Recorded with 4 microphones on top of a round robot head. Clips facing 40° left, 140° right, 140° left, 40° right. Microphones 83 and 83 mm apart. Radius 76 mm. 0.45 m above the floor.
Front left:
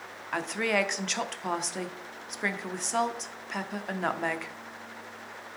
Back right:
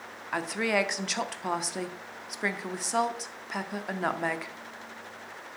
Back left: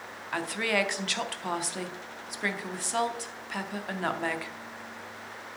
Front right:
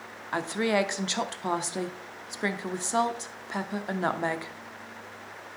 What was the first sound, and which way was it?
A woman speaking, 60° right.